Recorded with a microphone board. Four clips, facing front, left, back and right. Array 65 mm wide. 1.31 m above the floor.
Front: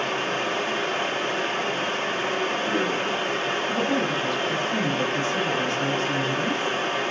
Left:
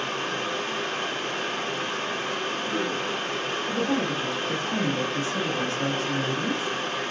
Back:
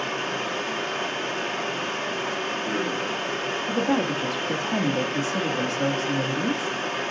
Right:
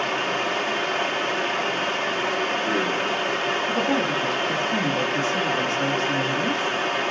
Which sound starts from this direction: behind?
A woman speaking, at 3.7 s.